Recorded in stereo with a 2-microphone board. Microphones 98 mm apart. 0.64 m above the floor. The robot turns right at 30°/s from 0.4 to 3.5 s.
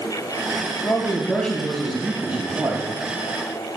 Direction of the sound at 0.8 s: 155° left.